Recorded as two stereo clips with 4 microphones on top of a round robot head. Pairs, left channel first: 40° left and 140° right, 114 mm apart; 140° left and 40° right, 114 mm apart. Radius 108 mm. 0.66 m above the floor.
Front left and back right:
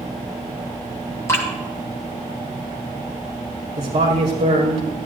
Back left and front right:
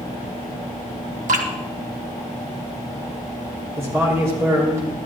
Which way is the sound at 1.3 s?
25° right.